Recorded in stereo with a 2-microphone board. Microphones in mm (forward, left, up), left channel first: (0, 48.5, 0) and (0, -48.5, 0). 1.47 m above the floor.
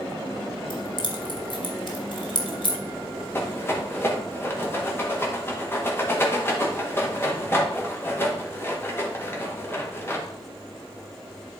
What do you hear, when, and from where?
0.7 s keys jangling: 55° left (ahead or behind), 1.5 m
3.3 s a rattle: 25° left (ahead or behind), 1.8 m